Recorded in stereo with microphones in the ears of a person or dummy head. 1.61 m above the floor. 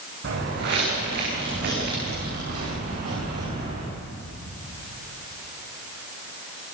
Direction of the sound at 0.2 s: 55° right (ahead or behind).